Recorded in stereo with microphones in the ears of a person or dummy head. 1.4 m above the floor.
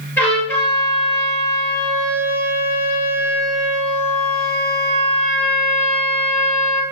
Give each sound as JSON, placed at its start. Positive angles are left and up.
{"t": 0.2, "sound": "a trumpet", "side_deg": 5, "distance_m": 8.0}